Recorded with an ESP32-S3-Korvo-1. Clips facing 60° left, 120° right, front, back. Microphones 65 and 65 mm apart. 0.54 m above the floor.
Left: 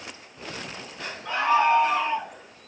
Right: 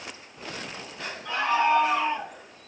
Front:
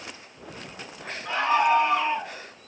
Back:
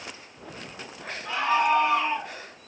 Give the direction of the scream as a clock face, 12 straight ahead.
11 o'clock.